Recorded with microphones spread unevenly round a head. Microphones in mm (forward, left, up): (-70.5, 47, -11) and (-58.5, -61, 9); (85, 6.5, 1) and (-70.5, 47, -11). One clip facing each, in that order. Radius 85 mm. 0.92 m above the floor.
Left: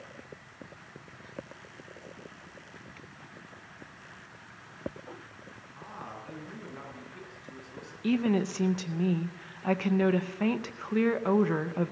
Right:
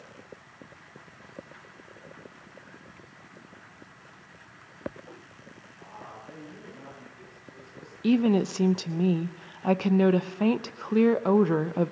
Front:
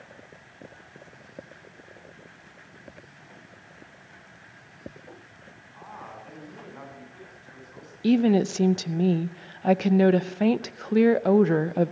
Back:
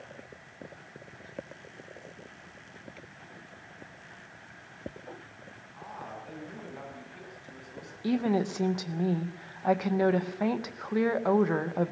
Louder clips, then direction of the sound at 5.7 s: Left 2 dB, even; 85° left.